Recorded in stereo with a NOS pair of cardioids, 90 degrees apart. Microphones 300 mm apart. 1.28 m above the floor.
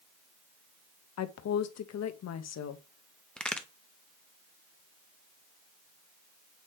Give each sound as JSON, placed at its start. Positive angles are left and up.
{"t": 1.2, "sound": "a woman speaking", "azimuth_deg": 60, "distance_m": 1.1}
{"t": 3.4, "sound": "a crack", "azimuth_deg": 5, "distance_m": 1.1}